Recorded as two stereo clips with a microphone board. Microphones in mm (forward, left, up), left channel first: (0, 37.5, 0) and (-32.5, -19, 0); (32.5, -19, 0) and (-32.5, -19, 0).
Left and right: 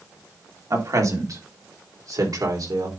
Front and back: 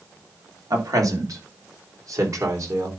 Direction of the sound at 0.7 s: 155° right.